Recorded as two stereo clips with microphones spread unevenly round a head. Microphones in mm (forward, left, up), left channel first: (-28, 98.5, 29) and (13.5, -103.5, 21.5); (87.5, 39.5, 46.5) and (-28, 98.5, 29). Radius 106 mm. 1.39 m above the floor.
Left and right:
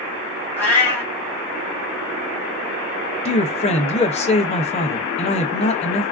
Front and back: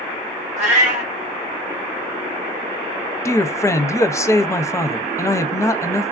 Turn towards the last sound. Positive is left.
turn(degrees=40)